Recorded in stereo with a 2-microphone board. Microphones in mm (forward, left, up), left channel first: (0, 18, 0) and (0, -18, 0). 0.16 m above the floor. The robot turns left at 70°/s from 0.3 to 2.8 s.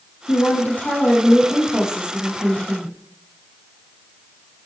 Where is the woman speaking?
90° left, 5.5 m; by 2.9 s 85° right, 5.5 m.